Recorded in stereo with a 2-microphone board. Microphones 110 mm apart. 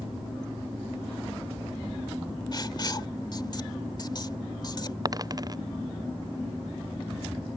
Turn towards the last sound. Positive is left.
turn(degrees=-35)  # may be behind; listen again after turning